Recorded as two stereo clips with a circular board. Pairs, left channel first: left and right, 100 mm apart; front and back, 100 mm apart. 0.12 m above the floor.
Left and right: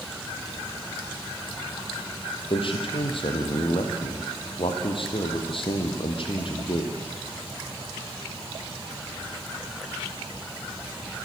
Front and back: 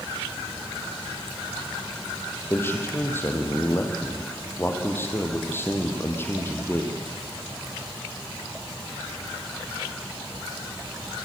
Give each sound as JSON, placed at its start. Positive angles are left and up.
{"t": 2.5, "sound": "a man speaking", "azimuth_deg": 65, "distance_m": 3.0}